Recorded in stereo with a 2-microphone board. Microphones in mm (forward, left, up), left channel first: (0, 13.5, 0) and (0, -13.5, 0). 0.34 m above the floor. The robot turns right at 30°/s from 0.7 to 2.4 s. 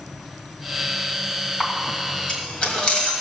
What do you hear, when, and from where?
1.6 s a camera shutter: 25° left (ahead or behind), 2.5 m; by 3.1 s 40° left (ahead or behind), 2.5 m